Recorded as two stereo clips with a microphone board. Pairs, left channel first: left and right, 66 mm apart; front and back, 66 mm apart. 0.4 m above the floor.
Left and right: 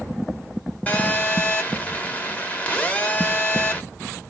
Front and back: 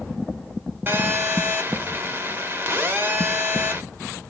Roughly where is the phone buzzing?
Behind left.